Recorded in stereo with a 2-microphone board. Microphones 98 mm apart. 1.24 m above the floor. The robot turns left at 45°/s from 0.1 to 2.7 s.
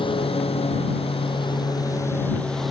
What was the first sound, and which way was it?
A lawn mower, 120° left.